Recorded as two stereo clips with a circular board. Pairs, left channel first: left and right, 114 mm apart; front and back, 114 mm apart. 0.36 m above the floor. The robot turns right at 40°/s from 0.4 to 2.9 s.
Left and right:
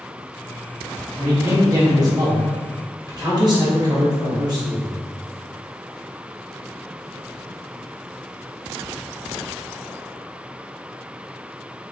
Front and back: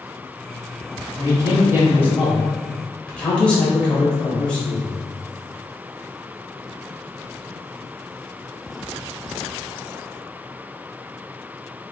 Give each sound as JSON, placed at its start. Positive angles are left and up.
{"t": 1.2, "sound": "a man speaking", "azimuth_deg": -145, "distance_m": 1.0}